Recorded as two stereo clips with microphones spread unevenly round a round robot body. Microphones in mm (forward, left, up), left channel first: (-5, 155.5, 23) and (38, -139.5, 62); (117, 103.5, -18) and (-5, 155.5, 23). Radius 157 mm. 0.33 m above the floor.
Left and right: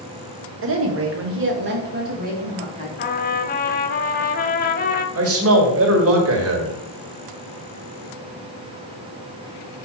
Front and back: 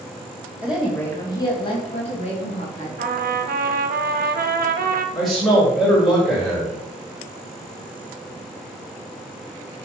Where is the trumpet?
155° left, 0.8 m.